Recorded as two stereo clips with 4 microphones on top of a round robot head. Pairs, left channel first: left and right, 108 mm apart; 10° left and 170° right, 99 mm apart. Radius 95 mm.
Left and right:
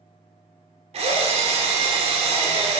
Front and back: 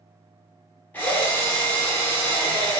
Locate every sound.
0.9 s a drill: 65° right, 0.8 m